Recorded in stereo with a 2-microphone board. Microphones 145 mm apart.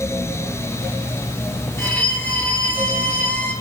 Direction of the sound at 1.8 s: 10° left (ahead or behind).